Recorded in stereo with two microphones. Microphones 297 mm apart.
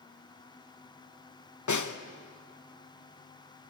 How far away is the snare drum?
About 0.9 m.